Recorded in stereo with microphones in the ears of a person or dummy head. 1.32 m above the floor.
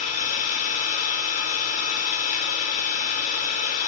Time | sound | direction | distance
0.0 | an engine running | 40° left (ahead or behind) | 3 m